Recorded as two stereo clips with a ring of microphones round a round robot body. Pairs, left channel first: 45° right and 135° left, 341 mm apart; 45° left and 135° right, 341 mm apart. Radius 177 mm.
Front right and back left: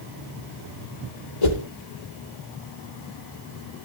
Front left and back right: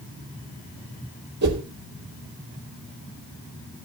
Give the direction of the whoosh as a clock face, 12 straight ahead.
2 o'clock.